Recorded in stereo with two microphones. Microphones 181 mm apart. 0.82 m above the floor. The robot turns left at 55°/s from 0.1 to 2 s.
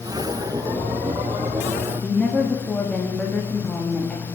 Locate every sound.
2.0 s a woman speaking: 5° left (ahead or behind), 1.0 m